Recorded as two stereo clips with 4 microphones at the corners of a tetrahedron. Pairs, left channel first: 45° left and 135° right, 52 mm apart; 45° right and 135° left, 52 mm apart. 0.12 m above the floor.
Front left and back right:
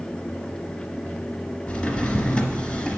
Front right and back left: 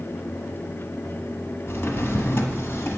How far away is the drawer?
About 1.0 m.